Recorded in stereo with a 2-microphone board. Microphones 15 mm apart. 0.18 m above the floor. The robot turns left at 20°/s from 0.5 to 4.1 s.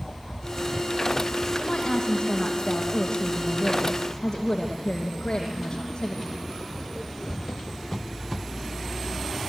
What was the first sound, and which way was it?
A woman speaking, 105° left.